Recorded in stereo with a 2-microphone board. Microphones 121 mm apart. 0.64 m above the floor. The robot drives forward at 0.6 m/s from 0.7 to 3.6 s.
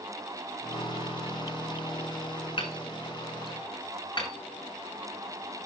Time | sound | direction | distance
2.6 | hammering | 45° left (ahead or behind) | 4 m